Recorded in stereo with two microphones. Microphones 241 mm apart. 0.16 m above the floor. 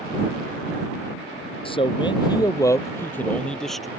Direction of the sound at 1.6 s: 20° left (ahead or behind).